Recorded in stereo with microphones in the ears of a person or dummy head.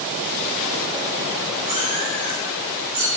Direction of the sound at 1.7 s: 35° right (ahead or behind).